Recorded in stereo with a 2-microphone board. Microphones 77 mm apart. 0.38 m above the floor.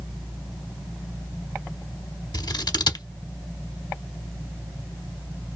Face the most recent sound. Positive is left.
turn(degrees=65)  # may be behind; listen again after turning